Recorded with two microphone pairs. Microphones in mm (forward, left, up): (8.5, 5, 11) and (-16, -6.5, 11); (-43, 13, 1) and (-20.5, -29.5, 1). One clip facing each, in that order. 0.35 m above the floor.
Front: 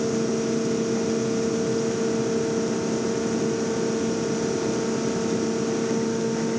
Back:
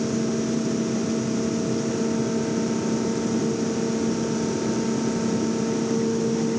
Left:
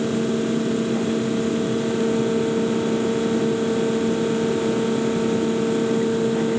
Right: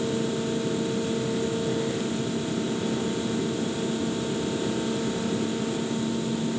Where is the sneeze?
I don't hear a sneeze.